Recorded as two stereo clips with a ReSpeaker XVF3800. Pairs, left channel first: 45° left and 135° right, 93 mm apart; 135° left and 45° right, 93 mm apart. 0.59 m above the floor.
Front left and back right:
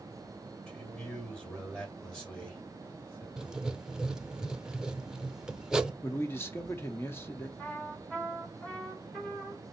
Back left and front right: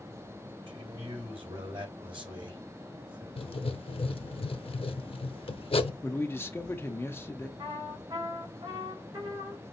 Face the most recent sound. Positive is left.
turn(degrees=-40)